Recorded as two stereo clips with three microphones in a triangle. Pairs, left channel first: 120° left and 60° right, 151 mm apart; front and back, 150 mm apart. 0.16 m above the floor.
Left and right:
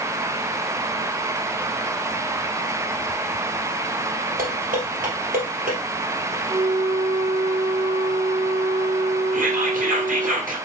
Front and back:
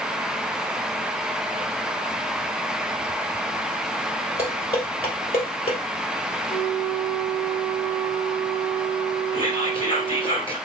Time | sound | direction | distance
4.4 | dishes clattering | 50° right | 2.5 m
6.5 | a flute | 25° right | 2.5 m
9.3 | whispering | 50° right | 2.5 m